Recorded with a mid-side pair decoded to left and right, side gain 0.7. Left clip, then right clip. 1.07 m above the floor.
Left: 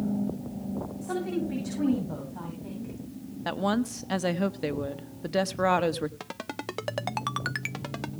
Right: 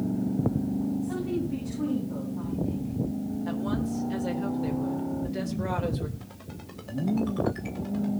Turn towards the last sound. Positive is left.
turn(degrees=65)